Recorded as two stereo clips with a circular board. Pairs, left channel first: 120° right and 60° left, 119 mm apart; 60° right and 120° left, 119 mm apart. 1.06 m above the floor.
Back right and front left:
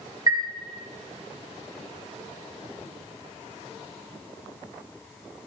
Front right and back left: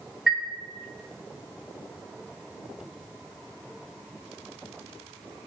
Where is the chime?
40° left, 0.7 m.